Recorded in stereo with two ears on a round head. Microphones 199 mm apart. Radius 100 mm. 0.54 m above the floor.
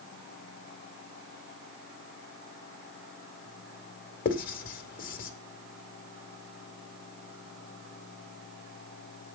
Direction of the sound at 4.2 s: 40° left (ahead or behind).